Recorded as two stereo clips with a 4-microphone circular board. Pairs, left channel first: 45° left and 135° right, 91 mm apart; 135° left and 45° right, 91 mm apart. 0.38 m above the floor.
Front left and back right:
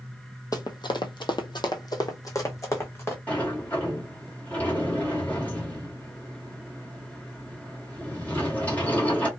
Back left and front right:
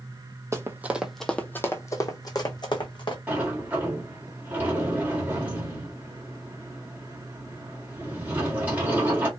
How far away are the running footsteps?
About 0.7 m.